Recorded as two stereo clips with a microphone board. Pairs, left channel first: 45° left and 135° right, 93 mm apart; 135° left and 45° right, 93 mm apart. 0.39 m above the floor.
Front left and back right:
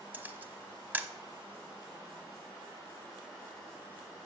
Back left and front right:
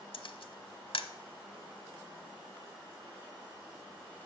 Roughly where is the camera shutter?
Behind left.